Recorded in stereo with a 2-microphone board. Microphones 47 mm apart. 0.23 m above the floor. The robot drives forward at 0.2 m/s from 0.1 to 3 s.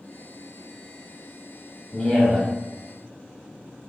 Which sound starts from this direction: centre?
A man speaking, at 1.9 s.